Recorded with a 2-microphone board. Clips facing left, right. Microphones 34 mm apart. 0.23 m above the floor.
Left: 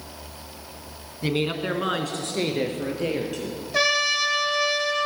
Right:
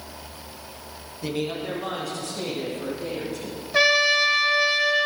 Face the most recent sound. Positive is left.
turn(degrees=-15)  # may be behind; listen again after turning